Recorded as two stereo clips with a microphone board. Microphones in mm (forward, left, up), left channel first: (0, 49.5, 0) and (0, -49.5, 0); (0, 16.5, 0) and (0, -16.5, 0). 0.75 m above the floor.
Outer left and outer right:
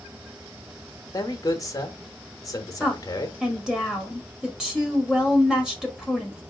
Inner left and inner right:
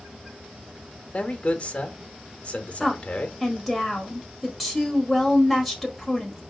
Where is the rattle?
I don't hear a rattle.